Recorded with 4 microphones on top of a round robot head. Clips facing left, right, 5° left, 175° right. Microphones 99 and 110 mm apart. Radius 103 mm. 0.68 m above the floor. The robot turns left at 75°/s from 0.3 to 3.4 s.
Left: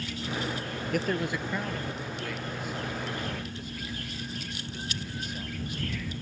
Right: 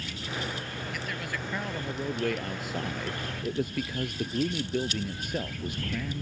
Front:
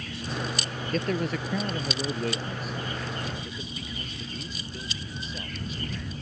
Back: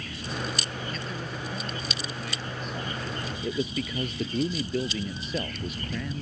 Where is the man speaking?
50° left; by 6.2 s 135° right.